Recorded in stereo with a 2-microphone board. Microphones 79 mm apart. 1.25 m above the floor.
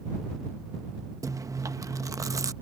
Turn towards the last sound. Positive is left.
turn(degrees=-40)  # may be behind; listen again after turning